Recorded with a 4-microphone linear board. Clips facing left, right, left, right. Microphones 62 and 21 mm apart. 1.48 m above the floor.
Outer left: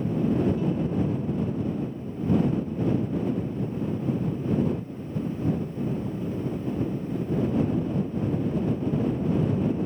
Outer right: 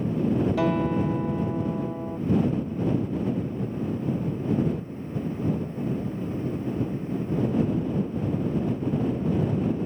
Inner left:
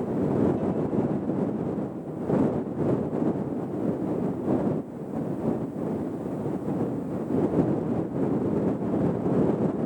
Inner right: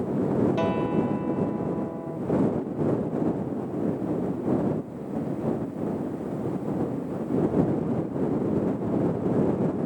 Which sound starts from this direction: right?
A guitar, at 0.6 s.